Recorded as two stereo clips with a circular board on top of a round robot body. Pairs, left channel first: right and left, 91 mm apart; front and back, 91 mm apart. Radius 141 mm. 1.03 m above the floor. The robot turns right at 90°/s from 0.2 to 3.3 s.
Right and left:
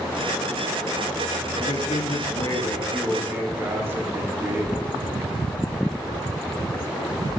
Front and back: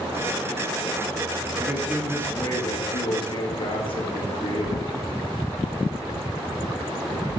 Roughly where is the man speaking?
Behind right.